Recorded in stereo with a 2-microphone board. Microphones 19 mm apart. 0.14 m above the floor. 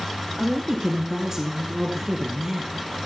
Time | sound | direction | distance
0.4 | a woman speaking | 25° right (ahead or behind) | 1.6 m